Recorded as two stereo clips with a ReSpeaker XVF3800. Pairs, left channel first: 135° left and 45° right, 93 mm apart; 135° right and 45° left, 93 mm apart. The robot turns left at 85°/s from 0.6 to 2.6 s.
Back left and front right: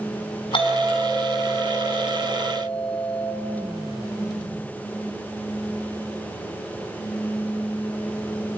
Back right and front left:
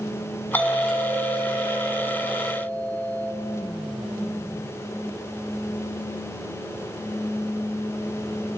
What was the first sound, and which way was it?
A doorbell, 155° left.